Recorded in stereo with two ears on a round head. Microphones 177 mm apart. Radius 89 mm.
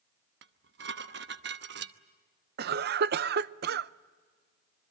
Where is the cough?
55° right (ahead or behind), 0.6 m.